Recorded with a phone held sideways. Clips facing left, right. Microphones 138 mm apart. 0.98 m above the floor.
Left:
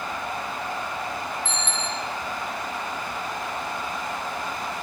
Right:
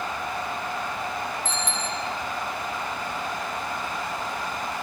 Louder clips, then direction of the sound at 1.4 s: Right 1 dB; 40° right (ahead or behind).